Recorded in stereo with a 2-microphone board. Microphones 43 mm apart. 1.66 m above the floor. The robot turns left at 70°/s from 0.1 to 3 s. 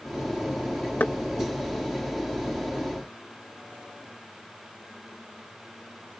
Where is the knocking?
45° left (ahead or behind); by 1.1 s 40° left (ahead or behind).